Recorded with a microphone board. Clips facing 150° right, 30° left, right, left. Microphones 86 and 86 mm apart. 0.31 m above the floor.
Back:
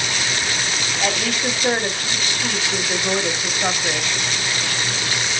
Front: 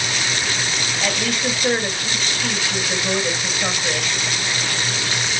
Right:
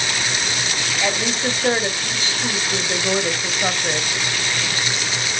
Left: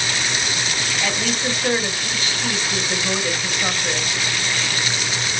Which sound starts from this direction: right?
A woman speaking, at 1.0 s.